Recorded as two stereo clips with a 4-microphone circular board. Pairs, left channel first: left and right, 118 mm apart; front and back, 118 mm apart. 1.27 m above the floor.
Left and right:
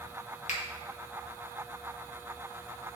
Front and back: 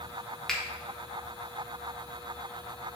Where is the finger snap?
85° left, 1.3 m.